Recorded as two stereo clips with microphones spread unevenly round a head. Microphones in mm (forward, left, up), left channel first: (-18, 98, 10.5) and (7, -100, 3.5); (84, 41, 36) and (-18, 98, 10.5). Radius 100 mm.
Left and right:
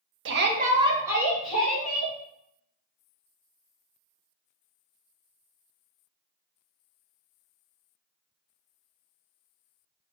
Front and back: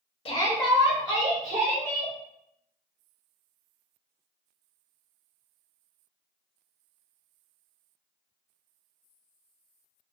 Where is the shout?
80° right, 0.5 m; by 2.1 s straight behind, 1.7 m.